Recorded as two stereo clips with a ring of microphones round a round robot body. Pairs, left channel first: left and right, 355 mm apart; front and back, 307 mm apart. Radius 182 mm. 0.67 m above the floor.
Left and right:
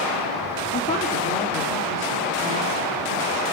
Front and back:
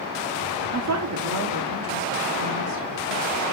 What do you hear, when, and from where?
0.7 s a woman speaking: 150° left, 1.6 m; by 3.4 s 150° right, 3 m